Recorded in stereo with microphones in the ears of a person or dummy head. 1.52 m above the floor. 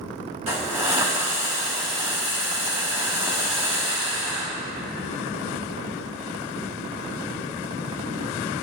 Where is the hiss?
30° right (ahead or behind), 1.4 m.